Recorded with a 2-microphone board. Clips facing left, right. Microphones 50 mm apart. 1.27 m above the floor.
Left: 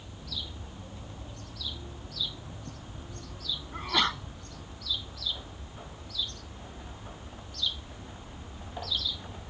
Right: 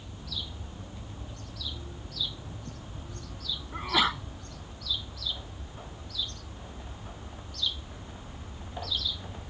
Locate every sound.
3.7 s a sneeze: 5° right (ahead or behind)